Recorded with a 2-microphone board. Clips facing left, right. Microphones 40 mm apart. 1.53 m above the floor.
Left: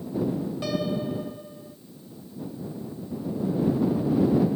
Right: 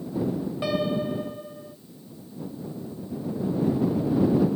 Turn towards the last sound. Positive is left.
turn(degrees=-25)  # may be behind; listen again after turning